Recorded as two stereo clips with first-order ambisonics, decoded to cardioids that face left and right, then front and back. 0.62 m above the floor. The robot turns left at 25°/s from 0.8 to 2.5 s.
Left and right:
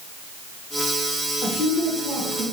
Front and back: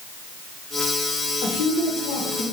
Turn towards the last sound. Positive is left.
turn(degrees=-5)